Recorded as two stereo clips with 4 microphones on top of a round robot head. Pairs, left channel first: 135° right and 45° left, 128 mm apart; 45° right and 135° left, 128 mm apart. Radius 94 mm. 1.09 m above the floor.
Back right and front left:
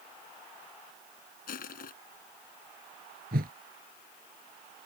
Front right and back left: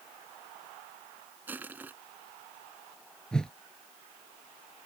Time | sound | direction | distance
1.5 | crushing | 150° right | ?
3.3 | a whoosh | 40° left | ?